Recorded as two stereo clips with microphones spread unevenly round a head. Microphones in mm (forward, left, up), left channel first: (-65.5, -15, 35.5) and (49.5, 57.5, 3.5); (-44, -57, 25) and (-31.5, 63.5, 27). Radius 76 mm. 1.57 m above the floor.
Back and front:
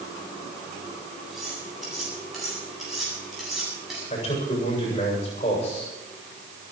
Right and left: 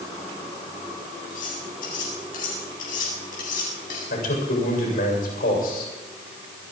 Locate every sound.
1.3 s cutlery clinking: 60° right, 8 m
4.1 s a man speaking: 95° right, 7.5 m